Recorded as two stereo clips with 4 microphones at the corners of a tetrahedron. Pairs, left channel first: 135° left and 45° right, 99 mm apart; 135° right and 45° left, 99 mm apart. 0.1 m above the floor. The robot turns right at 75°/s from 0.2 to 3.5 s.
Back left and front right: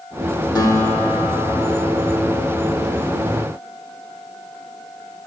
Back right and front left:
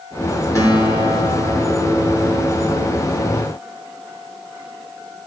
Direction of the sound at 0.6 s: 175° left.